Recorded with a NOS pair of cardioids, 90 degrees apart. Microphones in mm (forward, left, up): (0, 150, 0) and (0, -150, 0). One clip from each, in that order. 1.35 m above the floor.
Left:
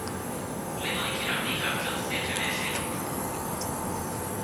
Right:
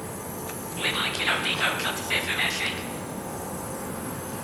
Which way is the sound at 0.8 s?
40° right.